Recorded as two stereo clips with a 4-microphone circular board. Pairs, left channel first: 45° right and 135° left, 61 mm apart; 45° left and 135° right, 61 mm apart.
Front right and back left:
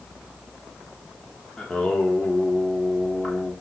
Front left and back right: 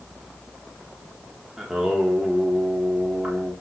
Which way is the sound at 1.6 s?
85° right.